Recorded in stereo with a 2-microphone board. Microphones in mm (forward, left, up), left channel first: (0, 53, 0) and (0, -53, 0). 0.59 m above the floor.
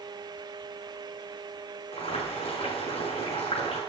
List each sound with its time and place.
1.9 s boiling: 65° left (ahead or behind), 7 m